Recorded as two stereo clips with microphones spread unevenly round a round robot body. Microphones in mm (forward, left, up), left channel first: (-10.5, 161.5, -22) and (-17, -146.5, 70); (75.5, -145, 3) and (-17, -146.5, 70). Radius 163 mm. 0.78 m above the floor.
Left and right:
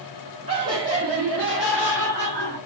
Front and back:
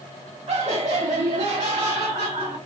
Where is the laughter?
170° right, 1.8 m; by 2.6 s 160° left, 2.5 m.